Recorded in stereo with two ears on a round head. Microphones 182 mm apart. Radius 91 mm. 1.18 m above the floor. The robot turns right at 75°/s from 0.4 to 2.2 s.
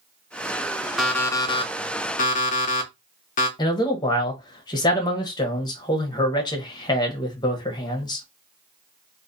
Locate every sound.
1.0 s an alarm clock: straight ahead, 0.5 m; by 3.5 s 90° left, 0.5 m
3.6 s a man speaking: 20° left (ahead or behind), 0.8 m